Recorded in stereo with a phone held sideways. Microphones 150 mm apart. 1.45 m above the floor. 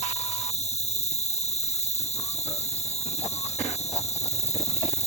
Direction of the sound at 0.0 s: 50° left (ahead or behind).